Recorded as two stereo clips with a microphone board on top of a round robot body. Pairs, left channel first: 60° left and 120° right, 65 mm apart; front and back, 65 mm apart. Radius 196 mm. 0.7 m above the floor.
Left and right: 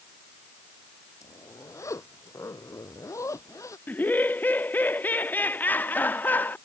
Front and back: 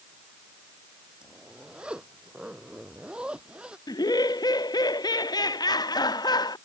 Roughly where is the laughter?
Ahead.